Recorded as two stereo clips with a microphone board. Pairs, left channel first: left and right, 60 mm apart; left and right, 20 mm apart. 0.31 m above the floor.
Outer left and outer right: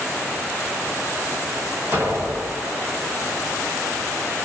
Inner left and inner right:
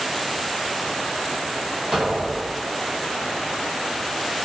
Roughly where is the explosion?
Right.